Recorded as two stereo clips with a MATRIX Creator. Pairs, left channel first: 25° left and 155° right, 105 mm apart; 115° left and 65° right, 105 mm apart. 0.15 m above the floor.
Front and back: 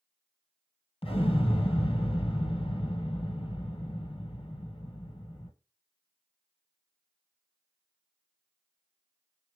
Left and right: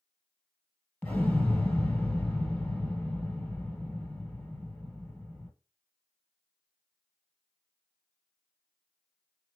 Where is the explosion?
40° left, 1.3 m.